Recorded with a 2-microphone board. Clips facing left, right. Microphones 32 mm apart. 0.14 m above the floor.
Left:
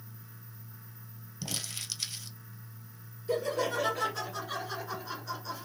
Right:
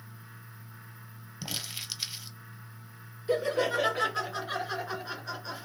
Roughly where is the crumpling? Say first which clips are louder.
Right 1 dB; centre.